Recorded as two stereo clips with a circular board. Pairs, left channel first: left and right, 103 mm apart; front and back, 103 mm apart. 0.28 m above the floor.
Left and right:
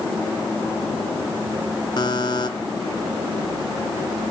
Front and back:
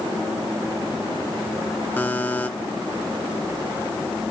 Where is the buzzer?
65° left, 0.7 m.